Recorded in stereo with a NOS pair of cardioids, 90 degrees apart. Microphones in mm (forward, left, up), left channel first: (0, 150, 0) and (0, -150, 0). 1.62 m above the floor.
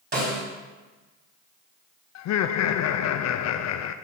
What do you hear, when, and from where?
0.1 s a snare drum: 35° right, 4 m
2.1 s laughter: 60° left, 0.6 m